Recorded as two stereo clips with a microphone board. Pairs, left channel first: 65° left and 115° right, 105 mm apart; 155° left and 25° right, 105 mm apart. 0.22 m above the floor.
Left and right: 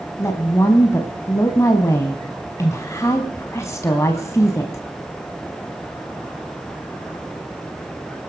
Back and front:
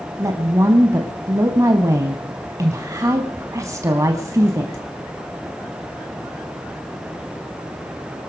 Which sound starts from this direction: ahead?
A woman speaking, at 0.2 s.